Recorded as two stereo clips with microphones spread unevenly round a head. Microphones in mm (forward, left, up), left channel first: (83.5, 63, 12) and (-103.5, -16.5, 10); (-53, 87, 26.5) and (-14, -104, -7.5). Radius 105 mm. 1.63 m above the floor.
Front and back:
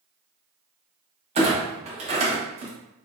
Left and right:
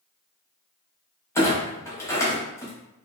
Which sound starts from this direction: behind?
A clunk, at 1.4 s.